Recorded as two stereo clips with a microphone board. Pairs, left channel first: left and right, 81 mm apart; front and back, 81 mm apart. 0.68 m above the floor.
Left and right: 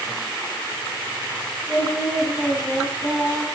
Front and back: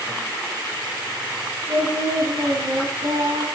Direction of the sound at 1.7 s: 175° right.